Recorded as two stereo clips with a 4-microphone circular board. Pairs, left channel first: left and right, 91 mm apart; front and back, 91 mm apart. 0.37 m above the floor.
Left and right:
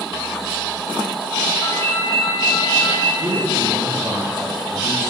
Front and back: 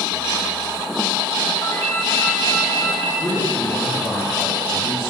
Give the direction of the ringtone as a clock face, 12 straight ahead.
10 o'clock.